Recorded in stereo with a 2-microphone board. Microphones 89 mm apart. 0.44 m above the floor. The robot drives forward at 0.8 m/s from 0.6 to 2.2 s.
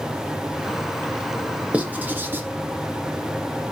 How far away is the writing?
About 0.8 m.